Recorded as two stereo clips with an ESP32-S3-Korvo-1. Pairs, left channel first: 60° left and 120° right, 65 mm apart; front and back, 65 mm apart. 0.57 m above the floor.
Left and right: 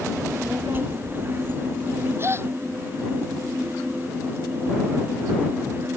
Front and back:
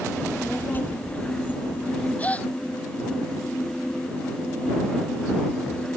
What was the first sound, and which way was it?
A child speaking, 65° right.